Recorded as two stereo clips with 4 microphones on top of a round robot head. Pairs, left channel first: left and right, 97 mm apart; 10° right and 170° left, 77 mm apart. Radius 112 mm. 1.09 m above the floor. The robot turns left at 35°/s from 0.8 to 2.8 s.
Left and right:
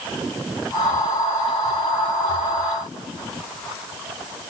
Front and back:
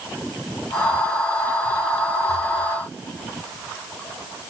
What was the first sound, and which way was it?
Only background noise.